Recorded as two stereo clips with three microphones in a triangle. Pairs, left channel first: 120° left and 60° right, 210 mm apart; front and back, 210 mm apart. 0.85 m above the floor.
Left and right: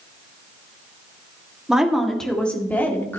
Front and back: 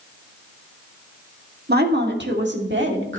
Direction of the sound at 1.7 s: 145° right.